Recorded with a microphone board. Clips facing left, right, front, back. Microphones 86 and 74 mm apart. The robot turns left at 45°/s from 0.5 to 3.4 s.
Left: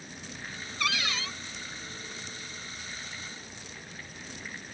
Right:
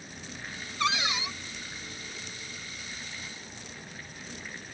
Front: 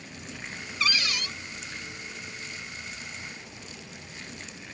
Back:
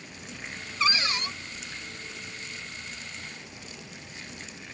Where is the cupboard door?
135° right; by 1.3 s 160° right.